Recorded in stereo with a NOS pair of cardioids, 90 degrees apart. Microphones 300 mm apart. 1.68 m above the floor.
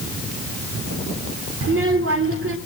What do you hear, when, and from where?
1.6 s a child speaking: 45° right, 3 m